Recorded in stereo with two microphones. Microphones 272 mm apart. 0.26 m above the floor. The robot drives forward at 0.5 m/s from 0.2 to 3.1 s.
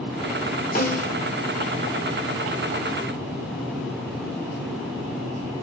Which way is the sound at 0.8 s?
35° left (ahead or behind).